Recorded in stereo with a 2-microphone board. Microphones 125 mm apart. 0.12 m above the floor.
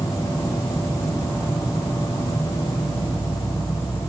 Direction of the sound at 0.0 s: 5° right (ahead or behind).